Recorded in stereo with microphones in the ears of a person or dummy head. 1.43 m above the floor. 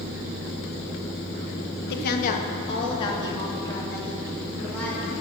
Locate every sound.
1.9 s a woman speaking: 60° left (ahead or behind), 1.3 m; by 5.2 s 5° left (ahead or behind), 4.5 m